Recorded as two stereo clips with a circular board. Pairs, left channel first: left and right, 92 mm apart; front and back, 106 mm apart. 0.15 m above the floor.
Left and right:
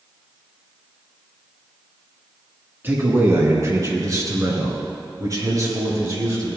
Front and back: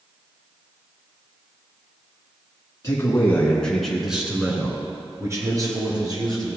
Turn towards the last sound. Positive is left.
turn(degrees=-140)